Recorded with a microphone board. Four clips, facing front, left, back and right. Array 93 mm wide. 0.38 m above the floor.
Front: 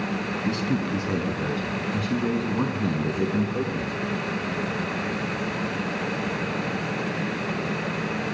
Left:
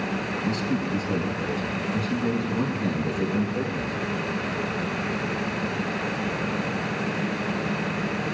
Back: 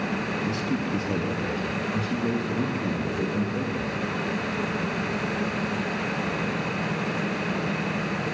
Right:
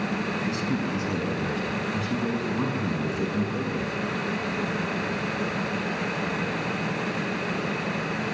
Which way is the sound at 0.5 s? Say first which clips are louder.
Left 4 dB, front 4 dB; 15° right.